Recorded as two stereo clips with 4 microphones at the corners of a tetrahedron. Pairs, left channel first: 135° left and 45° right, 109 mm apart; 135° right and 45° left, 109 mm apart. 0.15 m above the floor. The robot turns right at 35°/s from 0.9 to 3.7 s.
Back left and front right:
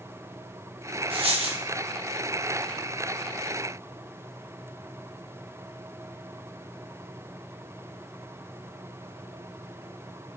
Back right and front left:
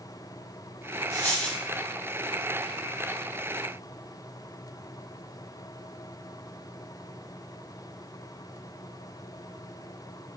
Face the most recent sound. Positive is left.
turn(degrees=20)